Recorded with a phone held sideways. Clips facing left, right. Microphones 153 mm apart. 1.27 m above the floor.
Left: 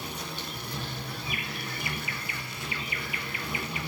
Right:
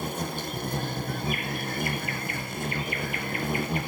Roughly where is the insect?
Right.